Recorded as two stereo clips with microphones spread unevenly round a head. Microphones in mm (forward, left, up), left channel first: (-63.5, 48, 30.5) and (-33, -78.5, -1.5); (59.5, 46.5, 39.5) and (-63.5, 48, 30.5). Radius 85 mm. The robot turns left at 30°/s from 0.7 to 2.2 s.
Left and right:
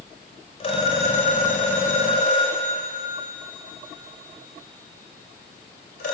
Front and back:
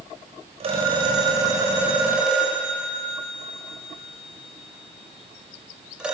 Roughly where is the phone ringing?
Behind left.